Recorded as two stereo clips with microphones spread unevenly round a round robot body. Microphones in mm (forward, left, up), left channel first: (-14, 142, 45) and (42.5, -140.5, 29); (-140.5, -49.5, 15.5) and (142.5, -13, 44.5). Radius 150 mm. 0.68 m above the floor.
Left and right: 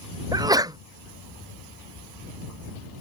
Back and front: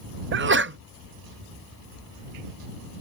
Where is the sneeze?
15° right.